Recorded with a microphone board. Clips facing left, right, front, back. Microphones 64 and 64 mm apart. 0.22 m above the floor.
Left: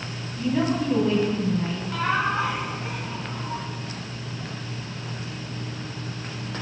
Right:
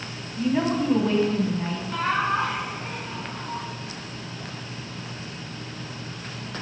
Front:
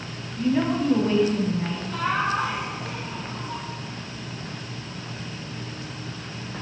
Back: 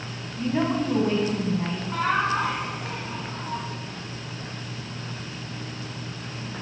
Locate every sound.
0.4 s a woman speaking: 150° right, 1.6 m
1.9 s laughter: straight behind, 2 m